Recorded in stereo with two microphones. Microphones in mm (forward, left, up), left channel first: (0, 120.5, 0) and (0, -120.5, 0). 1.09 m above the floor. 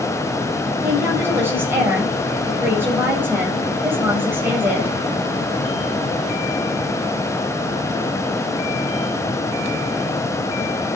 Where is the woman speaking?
10° right (ahead or behind), 5.5 m.